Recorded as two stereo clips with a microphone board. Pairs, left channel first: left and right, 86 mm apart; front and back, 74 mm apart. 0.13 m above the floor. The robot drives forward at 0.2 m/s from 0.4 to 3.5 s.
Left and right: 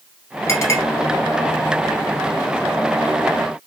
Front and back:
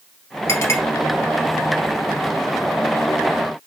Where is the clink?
45° left, 1.7 m.